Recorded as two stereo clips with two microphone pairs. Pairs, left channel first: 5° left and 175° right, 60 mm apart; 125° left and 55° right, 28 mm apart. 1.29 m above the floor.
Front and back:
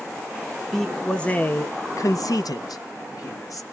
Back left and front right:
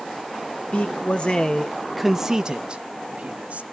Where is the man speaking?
90° left, 1.2 m; by 3.6 s 20° right, 1.6 m.